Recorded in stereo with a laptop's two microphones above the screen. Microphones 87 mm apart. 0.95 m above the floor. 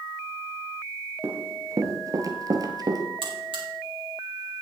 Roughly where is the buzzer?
Right.